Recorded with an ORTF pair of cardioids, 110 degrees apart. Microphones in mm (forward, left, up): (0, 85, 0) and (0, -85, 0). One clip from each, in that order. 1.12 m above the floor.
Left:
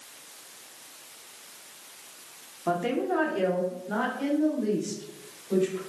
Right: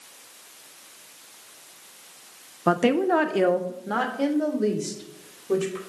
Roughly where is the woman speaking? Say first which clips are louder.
Right 6 dB; ahead right.